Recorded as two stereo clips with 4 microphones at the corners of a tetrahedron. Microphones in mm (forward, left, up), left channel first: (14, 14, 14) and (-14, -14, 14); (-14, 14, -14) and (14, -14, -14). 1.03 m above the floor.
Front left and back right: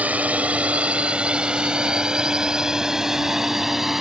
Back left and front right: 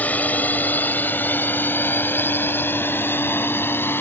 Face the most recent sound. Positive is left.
turn(degrees=145)